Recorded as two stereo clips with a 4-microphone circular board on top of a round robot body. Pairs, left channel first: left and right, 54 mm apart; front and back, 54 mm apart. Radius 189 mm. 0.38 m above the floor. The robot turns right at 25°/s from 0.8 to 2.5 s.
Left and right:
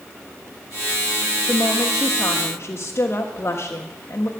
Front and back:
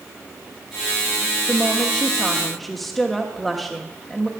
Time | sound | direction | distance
1.5 | a woman speaking | 60° left | 1.4 m